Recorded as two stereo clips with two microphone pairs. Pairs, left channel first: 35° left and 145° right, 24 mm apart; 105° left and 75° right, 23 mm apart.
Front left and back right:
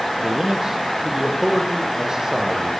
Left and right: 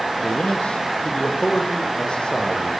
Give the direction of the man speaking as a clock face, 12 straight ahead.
7 o'clock.